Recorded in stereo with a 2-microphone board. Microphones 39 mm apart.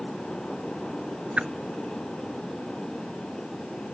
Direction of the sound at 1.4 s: 30° right (ahead or behind).